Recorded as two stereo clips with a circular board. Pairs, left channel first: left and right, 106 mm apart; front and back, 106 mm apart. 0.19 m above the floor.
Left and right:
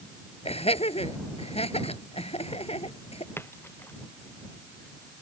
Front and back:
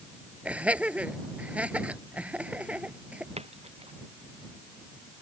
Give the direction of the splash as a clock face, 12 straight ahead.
7 o'clock.